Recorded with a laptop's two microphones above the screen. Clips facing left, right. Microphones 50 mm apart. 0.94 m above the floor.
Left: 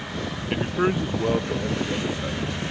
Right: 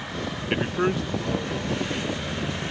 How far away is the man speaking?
About 0.5 m.